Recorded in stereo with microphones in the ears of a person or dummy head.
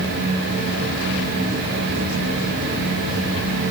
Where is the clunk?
I don't hear a clunk.